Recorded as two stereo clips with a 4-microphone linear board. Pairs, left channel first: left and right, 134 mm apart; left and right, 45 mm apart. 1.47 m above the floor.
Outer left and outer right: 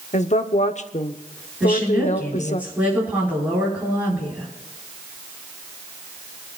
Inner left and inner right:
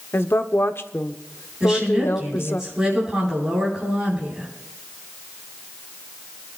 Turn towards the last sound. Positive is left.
turn(degrees=-10)  # may be behind; listen again after turning